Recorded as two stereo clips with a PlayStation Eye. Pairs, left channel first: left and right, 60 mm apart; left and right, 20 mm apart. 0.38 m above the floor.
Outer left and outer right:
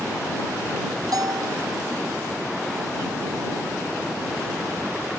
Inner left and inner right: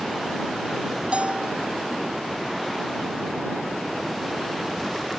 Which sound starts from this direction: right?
A bell, at 1.1 s.